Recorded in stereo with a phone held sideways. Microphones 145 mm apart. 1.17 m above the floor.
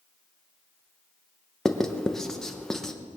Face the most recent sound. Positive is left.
turn(degrees=5)  # may be behind; listen again after turning